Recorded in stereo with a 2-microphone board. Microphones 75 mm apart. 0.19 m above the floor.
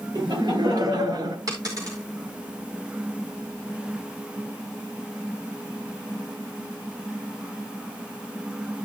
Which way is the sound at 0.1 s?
70° right (ahead or behind).